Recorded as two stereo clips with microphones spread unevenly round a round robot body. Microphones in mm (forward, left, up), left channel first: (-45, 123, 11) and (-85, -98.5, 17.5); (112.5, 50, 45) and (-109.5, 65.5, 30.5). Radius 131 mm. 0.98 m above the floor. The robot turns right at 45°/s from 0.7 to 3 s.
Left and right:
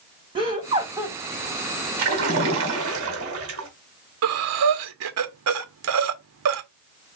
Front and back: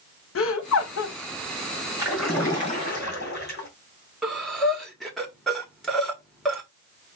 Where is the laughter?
30° right, 1.3 m; by 1.2 s 10° right, 1.3 m.